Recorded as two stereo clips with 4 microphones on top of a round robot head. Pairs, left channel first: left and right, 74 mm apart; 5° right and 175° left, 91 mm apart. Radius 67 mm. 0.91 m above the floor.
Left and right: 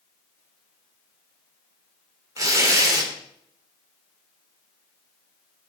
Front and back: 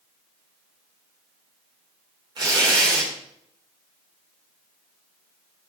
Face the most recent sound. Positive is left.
turn(degrees=-130)